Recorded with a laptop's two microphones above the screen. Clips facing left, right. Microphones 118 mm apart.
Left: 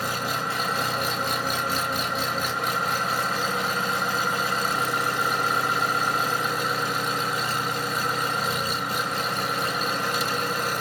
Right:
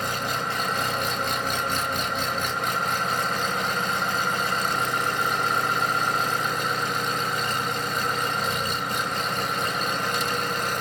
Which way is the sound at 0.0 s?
5° left (ahead or behind).